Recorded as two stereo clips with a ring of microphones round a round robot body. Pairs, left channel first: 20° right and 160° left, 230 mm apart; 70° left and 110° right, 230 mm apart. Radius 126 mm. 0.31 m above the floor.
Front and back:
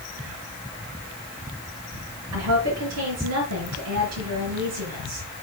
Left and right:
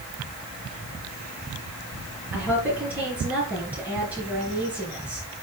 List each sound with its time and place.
2.3 s a woman speaking: 165° left, 4.5 m